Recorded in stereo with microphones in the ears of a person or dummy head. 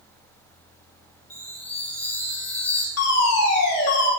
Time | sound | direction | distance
1.3 | a chime | 10° left (ahead or behind) | 3.5 m
3.0 | a fire alarm | 80° left | 6 m